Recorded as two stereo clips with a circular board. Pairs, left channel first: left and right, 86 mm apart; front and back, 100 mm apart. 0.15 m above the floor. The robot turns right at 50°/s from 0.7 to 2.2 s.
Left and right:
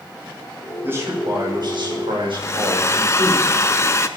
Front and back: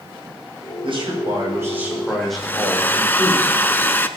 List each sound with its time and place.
0.8 s a man speaking: 155° right, 6.5 m; by 3.3 s 90° right, 6.5 m
2.3 s a hair dryer: 60° left, 0.7 m